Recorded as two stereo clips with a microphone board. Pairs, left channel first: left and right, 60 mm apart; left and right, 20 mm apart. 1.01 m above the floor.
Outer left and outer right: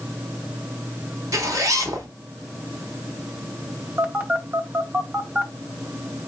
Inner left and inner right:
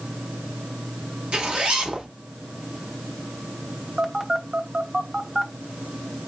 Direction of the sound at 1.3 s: 65° right (ahead or behind).